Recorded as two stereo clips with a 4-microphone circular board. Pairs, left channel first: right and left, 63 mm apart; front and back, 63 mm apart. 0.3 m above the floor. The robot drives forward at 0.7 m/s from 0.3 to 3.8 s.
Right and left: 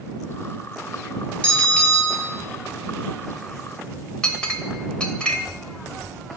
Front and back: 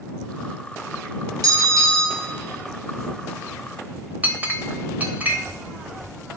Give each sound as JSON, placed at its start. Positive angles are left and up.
{"t": 1.4, "sound": "a bell", "azimuth_deg": -160, "distance_m": 2.0}
{"t": 4.2, "sound": "a clink", "azimuth_deg": -150, "distance_m": 0.8}